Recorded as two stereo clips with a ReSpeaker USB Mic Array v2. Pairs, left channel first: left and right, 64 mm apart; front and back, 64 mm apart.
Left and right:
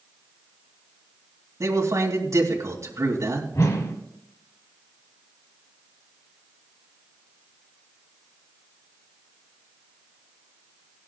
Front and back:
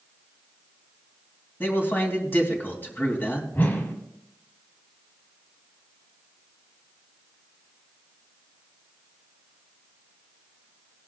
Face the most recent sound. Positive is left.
turn(degrees=55)